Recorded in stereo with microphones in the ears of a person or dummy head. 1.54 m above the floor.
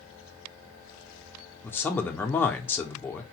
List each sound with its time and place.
1.6 s a man speaking: 10° left (ahead or behind), 0.6 m